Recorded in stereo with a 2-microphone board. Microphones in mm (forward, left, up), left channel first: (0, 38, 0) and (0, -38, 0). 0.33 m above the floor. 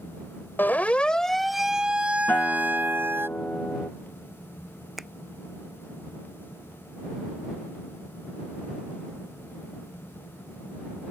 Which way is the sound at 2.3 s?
20° left (ahead or behind).